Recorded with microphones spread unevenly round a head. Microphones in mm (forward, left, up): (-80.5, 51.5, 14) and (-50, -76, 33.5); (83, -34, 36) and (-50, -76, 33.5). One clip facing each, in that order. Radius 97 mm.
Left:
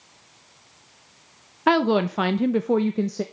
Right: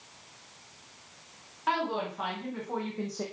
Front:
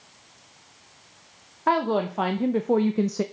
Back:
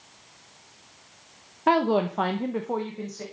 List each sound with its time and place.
1.7 s a woman speaking: 120° left, 0.8 m; by 3.2 s 45° left, 0.7 m